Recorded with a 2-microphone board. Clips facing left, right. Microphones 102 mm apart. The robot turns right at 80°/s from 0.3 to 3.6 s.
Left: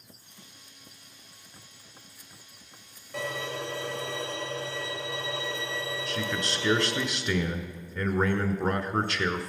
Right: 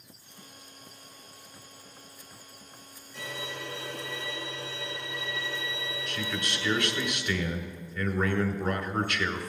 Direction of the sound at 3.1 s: 65° left.